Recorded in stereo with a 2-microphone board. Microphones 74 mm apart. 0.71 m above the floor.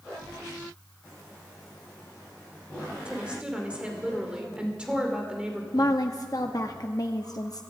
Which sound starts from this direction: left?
A woman speaking, at 5.7 s.